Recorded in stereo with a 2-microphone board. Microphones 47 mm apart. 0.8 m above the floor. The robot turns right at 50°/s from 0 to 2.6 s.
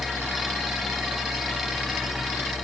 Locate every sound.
Only background noise.